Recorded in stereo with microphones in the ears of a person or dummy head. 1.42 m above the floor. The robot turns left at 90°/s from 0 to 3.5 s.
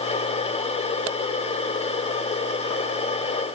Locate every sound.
Only background noise.